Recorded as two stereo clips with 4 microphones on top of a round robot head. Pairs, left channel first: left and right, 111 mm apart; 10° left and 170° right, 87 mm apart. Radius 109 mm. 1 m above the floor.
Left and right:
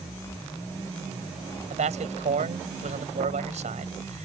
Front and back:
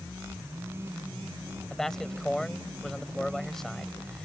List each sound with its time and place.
1.7 s a man speaking: 75° right